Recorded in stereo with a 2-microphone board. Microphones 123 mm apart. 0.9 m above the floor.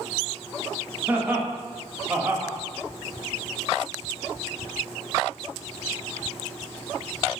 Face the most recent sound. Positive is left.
turn(degrees=-15)  # may be behind; listen again after turning